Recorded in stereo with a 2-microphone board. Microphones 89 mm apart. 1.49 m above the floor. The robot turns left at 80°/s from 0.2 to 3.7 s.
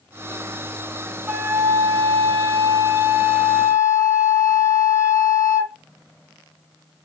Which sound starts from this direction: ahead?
A flute, at 1.3 s.